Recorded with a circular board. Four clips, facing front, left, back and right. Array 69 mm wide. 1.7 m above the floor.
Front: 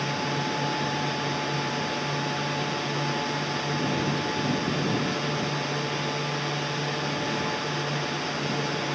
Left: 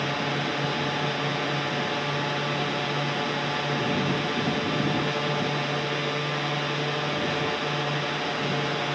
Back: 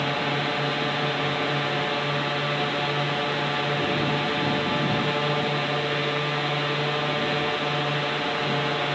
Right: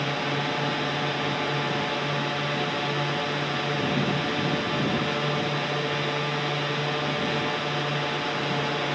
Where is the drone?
175° right.